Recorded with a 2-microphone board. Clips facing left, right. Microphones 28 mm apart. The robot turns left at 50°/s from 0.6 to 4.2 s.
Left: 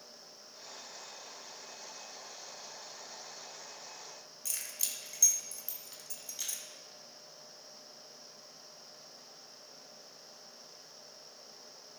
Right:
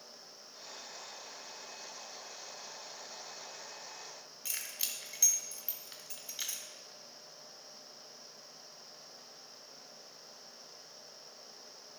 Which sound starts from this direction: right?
Keys jangling, at 4.5 s.